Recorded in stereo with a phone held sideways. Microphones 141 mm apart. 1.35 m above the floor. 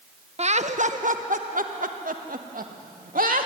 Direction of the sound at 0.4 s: 50° right (ahead or behind).